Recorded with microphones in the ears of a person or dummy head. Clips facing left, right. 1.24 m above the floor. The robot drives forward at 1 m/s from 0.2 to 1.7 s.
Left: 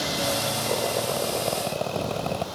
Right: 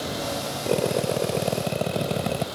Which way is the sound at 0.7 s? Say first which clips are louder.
Right 5 dB; 25° right (ahead or behind).